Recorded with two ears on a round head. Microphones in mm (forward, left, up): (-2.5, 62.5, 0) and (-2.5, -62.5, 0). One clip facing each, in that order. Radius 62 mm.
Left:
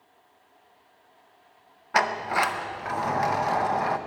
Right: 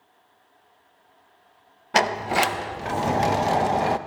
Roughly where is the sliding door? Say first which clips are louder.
Right 3 dB; right.